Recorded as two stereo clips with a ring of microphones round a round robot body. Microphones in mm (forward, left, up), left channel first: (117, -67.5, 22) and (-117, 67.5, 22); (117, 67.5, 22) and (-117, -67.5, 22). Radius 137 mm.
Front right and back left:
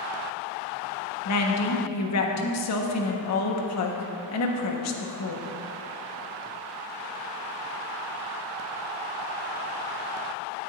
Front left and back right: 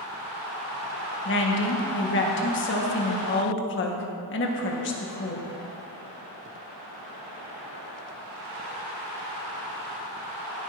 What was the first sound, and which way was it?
A woman speaking, 15° right.